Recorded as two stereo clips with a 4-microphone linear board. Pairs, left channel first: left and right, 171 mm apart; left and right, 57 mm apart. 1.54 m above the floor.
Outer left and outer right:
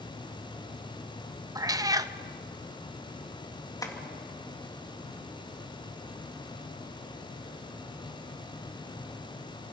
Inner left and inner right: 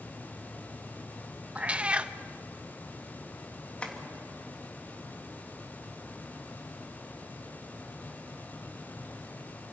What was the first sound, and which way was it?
A cat meowing, 20° right (ahead or behind).